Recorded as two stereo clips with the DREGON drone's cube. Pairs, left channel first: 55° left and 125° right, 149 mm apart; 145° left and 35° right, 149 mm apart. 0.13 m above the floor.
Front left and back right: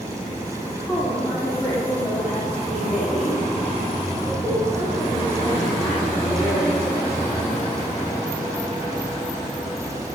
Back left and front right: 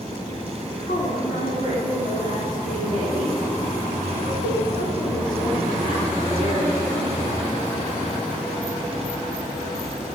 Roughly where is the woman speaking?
Behind left.